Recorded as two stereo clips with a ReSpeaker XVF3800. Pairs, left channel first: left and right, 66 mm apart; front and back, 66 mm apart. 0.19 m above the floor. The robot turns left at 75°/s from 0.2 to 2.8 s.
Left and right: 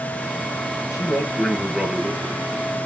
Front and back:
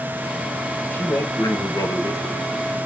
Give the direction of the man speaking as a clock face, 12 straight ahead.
10 o'clock.